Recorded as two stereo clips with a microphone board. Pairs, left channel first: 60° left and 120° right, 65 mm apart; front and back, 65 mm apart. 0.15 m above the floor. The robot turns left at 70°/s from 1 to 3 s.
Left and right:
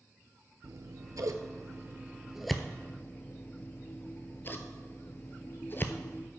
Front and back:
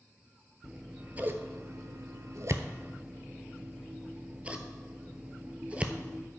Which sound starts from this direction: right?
Scissors, at 0.6 s.